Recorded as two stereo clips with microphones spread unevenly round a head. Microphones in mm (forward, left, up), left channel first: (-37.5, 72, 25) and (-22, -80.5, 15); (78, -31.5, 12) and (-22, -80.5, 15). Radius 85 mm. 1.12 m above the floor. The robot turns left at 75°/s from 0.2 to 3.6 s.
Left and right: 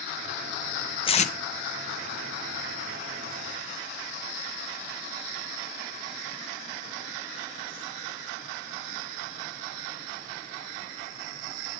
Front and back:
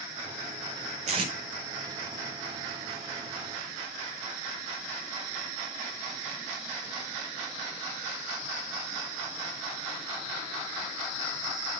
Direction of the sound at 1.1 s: 155° left.